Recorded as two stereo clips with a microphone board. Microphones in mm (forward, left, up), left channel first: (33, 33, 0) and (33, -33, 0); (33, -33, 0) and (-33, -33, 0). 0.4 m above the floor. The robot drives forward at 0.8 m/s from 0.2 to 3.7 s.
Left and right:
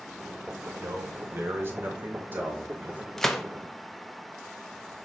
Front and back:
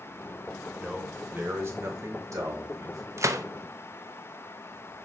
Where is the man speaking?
105° right, 1.2 m; by 3.0 s 155° right, 2.5 m.